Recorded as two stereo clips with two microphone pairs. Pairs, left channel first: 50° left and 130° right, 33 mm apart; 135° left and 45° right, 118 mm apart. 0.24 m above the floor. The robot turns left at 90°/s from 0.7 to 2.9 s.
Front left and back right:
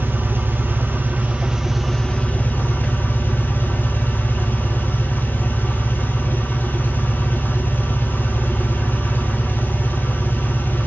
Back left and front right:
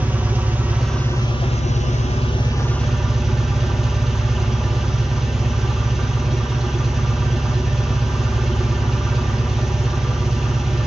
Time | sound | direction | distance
0.0 | an engine running | 120° right | 2.5 m